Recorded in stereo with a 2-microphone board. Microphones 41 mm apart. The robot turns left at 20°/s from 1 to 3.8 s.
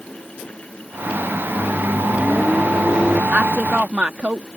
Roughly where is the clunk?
No clunk in this recording.